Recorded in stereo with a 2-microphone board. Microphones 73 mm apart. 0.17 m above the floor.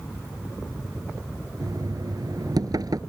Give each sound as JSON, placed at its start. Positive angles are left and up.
{"t": 1.6, "sound": "knocking", "side_deg": -65}